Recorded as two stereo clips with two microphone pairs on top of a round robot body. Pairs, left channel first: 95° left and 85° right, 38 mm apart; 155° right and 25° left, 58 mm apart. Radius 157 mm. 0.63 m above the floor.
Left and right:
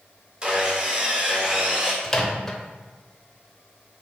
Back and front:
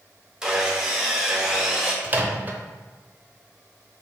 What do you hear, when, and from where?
0.4 s sawing: 30° right, 0.9 m
2.0 s a microwave: 45° left, 0.7 m